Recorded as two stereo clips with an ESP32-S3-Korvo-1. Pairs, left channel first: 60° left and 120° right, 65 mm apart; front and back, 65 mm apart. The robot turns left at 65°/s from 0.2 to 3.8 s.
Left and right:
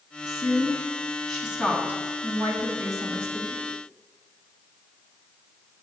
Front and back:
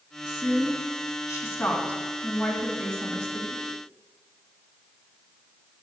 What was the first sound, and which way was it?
A woman speaking, 45° left.